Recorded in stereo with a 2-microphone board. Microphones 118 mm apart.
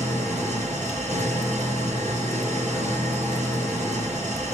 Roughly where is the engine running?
Right.